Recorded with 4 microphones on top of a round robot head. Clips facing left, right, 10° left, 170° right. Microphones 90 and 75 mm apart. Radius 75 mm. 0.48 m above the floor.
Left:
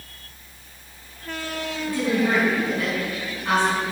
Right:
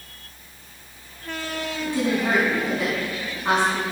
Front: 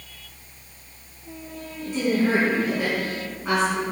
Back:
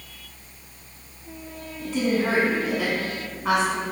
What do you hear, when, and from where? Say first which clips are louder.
1.8 s a woman speaking: left 1 dB, front 1 dB; 160° right, 4 m